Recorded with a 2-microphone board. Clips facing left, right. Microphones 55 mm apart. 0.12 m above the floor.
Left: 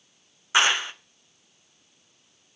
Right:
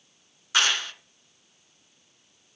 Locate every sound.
0.5 s a clap: 20° left (ahead or behind), 0.8 m